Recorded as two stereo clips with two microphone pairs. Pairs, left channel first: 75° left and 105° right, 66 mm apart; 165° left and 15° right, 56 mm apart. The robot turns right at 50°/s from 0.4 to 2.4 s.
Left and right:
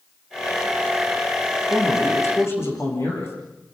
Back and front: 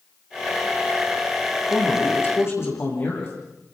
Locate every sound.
1.7 s a man speaking: 90° left, 9 m; by 3.4 s 125° left, 9 m